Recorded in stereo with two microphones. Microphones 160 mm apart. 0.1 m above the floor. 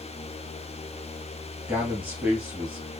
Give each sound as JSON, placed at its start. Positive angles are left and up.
{"t": 1.7, "sound": "a man speaking", "side_deg": -10, "distance_m": 2.5}